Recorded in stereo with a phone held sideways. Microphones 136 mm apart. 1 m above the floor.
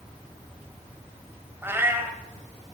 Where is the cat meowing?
15° right (ahead or behind), 1.6 m.